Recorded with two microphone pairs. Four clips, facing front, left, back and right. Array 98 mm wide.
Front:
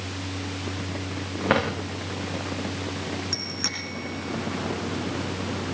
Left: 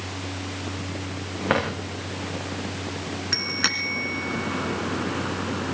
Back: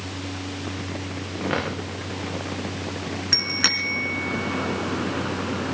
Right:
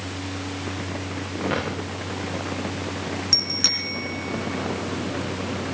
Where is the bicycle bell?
130° left, 2.5 m.